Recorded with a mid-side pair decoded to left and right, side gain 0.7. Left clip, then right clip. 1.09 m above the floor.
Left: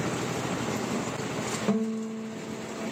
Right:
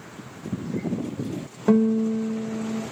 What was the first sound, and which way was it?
A guitar, 25° right.